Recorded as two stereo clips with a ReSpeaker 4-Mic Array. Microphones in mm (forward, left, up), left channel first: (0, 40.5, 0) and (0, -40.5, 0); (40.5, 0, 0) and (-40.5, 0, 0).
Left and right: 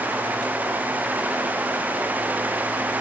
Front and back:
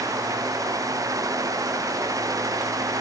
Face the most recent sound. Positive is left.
No sound to turn to.